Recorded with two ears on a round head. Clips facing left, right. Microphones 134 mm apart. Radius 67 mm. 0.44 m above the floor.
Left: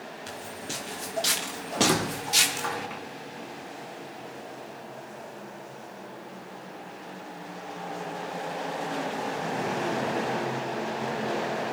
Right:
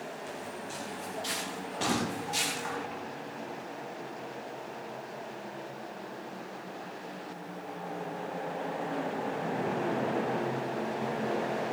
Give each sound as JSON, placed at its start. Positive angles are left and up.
{"t": 0.3, "sound": "footsteps", "side_deg": 75, "distance_m": 6.0}
{"t": 1.8, "sound": "a squeak", "side_deg": 85, "distance_m": 4.5}